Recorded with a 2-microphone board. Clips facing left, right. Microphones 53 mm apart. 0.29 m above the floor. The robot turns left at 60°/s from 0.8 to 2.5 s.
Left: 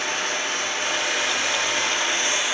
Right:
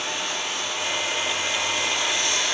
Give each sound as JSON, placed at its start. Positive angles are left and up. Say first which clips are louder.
{"t": 0.0, "sound": "running water", "louder": "left 3 dB", "azimuth_deg": 120, "distance_m": 0.9}